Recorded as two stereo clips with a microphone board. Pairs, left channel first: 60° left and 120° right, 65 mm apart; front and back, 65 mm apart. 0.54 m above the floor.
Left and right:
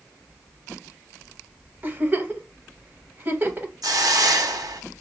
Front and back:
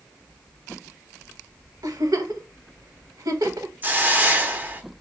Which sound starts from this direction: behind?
A giggle, at 1.8 s.